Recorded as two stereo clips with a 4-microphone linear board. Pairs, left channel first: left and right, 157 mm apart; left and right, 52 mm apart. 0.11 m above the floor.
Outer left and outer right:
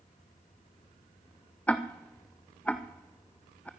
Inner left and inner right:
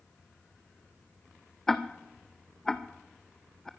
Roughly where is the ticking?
Centre.